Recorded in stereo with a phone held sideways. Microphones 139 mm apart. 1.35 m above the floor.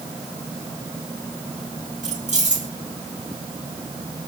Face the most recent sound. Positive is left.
turn(degrees=-60)  # may be behind; listen again after turning